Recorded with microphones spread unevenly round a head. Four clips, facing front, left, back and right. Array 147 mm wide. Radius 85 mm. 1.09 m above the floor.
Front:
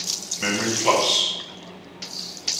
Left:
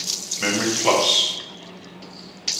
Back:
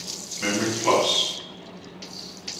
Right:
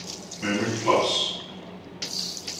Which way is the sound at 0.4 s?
65° left.